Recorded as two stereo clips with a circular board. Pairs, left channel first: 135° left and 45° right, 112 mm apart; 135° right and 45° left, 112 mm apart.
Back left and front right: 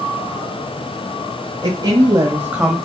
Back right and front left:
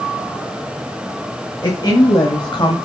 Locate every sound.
1.6 s a woman speaking: 80° right, 2 m; by 2.9 s 140° right, 1.5 m